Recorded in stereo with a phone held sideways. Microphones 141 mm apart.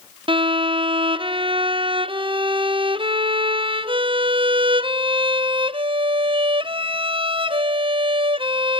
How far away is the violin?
About 0.5 m.